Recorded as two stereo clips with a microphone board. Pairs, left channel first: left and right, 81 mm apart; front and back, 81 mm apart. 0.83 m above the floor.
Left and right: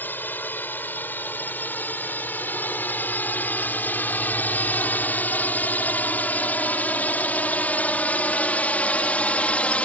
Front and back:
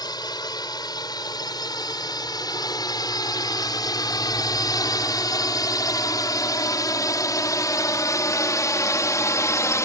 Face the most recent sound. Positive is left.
turn(degrees=25)